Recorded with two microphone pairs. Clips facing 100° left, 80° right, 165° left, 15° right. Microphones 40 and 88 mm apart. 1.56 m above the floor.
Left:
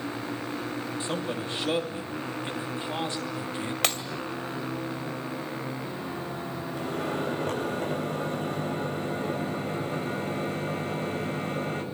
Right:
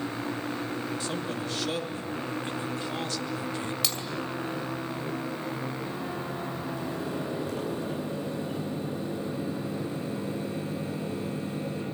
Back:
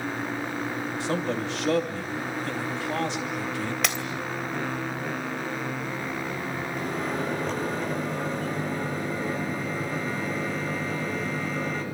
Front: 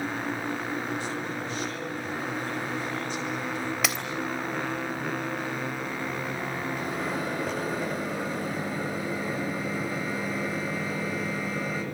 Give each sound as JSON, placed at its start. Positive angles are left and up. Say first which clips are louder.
{"t": 1.0, "sound": "a man speaking", "louder": "left 1 dB, back 5 dB", "azimuth_deg": 165, "distance_m": 3.0}
{"t": 3.8, "sound": "breaking glass", "louder": "left 9 dB, front 1 dB", "azimuth_deg": 75, "distance_m": 2.5}
{"t": 6.7, "sound": "a microwave", "louder": "left 6 dB, back 3 dB", "azimuth_deg": 70, "distance_m": 9.0}